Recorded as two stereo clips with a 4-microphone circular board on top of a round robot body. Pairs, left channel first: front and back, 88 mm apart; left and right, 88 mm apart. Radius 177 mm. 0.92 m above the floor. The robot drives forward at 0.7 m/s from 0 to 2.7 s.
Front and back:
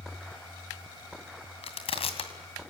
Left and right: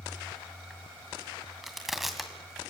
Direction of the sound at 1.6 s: Straight ahead.